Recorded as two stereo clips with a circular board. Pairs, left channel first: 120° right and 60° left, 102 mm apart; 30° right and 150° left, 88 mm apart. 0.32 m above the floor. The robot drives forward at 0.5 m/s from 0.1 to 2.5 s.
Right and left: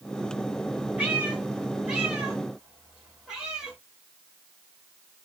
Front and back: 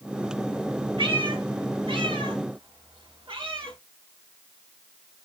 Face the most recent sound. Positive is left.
turn(degrees=145)